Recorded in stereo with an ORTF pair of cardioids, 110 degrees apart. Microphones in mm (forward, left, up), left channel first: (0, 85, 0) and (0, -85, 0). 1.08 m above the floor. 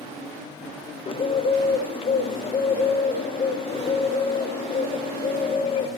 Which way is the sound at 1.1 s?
35° left.